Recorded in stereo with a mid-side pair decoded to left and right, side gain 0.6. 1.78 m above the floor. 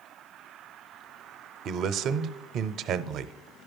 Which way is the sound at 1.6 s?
55° right.